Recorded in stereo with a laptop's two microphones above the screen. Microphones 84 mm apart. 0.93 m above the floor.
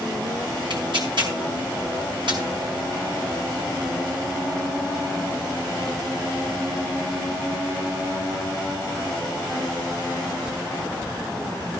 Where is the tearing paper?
65° right (ahead or behind), 4.5 m.